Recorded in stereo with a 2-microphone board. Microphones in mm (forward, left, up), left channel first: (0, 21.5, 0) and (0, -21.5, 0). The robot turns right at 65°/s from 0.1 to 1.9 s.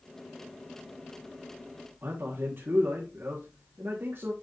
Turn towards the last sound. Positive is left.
turn(degrees=-60)  # may be behind; listen again after turning